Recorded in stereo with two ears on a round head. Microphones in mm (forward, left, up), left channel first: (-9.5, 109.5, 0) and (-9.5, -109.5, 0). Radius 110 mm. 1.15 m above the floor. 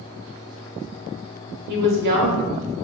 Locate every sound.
1.7 s a woman speaking: 45° right (ahead or behind), 0.9 m